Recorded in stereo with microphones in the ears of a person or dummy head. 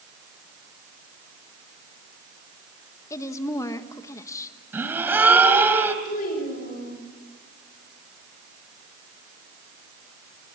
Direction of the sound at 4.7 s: 10° right (ahead or behind).